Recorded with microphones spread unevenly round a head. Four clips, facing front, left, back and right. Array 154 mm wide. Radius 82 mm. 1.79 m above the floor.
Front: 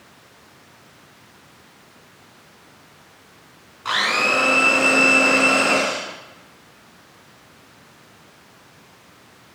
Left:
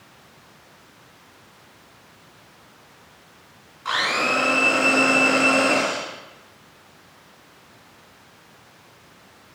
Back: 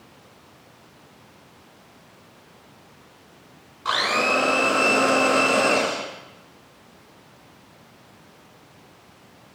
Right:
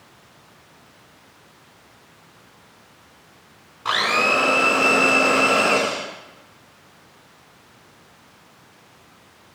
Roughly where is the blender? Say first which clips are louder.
Right 3 dB, front 1 dB; right.